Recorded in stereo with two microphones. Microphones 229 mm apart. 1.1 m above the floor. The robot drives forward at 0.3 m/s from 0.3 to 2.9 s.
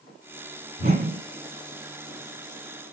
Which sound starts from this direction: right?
A whoosh, at 0.8 s.